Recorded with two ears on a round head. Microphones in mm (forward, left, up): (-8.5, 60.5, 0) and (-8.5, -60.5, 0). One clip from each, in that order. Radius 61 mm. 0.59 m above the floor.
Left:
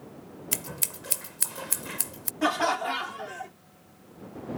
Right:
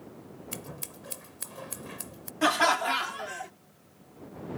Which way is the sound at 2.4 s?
35° right (ahead or behind).